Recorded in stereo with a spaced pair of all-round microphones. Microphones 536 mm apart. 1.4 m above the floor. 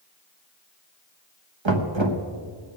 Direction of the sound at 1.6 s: 55° right (ahead or behind).